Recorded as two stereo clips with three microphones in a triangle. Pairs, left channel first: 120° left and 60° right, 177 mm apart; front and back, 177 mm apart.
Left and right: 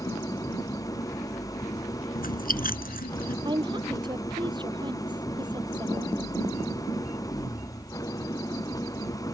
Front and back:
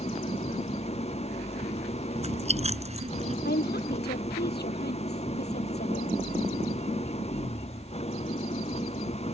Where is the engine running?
50° left.